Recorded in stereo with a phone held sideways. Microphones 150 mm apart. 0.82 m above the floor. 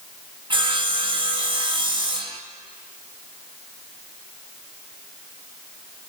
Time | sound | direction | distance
0.5 | sawing | 35° right (ahead or behind) | 0.9 m